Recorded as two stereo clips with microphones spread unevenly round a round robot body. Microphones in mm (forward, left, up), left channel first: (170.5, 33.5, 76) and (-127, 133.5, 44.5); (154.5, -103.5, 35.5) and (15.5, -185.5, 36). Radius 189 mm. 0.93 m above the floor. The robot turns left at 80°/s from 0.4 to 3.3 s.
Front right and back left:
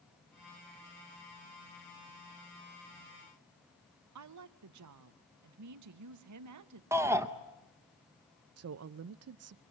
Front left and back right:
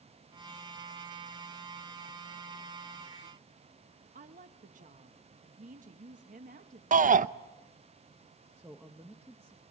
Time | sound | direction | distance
4.2 | a woman speaking | 170° left | 1.0 m
6.9 | a shout | 120° right | 0.7 m
8.6 | a woman speaking | 135° left | 0.5 m